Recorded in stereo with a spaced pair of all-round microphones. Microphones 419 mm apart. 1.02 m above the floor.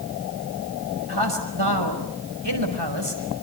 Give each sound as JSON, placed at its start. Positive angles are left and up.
{"t": 1.1, "sound": "a man speaking", "side_deg": -75, "distance_m": 5.5}